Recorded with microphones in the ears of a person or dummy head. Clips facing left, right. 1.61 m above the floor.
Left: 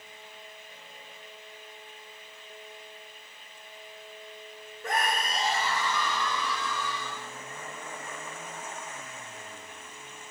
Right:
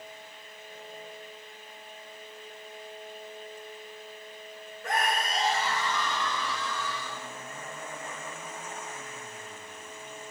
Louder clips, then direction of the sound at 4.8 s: Even; 70° left (ahead or behind).